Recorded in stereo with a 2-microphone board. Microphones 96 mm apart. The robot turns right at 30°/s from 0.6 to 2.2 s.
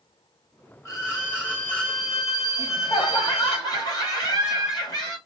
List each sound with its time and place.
0.8 s a violin: 140° left, 1.4 m; by 3.6 s 175° right, 1.4 m
2.6 s laughter: 45° left (ahead or behind), 2 m